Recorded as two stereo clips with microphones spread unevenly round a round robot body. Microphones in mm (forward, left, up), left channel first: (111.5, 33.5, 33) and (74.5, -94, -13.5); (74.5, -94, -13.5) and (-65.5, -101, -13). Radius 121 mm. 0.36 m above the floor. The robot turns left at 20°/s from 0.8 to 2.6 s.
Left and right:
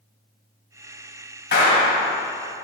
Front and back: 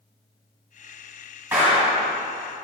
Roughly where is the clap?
Left.